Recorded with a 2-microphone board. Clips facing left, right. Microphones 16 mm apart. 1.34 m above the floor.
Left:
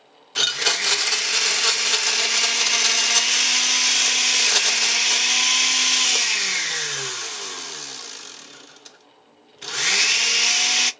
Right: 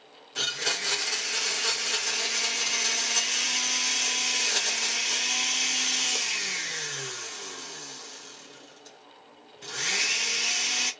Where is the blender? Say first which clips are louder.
Left 8 dB; 45° left (ahead or behind), 0.5 m.